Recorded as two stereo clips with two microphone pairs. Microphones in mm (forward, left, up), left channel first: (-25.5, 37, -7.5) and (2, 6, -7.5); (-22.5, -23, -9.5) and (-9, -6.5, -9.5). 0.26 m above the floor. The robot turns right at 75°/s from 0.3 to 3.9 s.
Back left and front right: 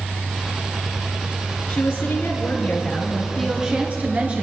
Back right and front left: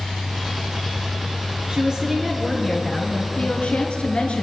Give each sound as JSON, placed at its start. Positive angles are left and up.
{"t": 1.7, "sound": "a woman speaking", "azimuth_deg": 90, "distance_m": 3.5}